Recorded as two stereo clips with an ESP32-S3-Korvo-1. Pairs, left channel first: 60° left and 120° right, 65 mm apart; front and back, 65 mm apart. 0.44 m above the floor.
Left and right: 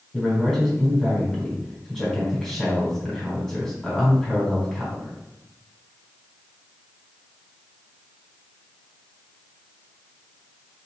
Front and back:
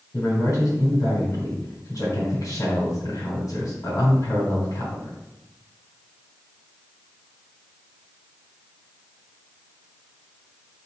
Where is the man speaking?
20° right, 3.5 m.